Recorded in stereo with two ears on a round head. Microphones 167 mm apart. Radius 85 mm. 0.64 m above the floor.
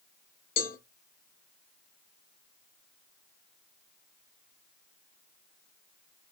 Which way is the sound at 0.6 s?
45° left (ahead or behind).